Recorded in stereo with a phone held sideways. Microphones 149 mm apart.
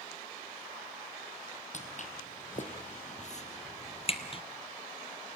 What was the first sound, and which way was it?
Footsteps, 55° left (ahead or behind).